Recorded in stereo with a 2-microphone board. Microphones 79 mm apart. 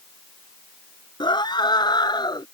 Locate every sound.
1.2 s a scream: 70° left (ahead or behind); by 2.5 s 65° left (ahead or behind)